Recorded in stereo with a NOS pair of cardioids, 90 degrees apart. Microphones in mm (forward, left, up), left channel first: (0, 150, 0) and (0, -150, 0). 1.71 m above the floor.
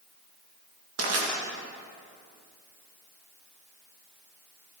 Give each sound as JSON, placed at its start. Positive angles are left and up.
{"t": 1.0, "sound": "crushing", "azimuth_deg": -55, "distance_m": 2.0}